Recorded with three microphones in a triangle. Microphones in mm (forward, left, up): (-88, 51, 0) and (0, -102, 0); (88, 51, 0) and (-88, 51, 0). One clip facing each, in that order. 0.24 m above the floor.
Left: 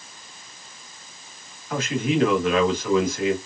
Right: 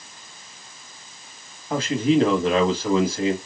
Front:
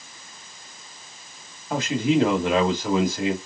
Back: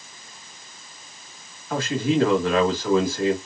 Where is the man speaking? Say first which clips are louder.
Right 4 dB, front 1 dB; 50° right, 1.4 m.